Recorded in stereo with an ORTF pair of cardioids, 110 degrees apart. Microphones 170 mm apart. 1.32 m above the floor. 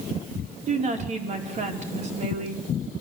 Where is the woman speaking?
45° right, 4.5 m.